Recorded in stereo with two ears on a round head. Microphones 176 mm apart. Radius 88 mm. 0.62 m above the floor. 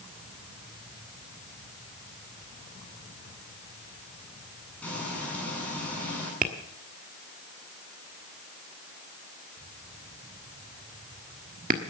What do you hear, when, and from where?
4.8 s frying: 10° left (ahead or behind), 7 m
6.4 s tapping: 40° right (ahead or behind), 1.5 m